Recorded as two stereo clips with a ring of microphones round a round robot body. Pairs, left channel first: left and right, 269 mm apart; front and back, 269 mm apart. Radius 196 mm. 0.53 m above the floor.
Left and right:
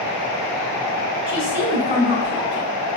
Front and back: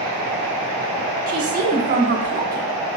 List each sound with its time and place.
1.3 s a woman speaking: 145° right, 1.2 m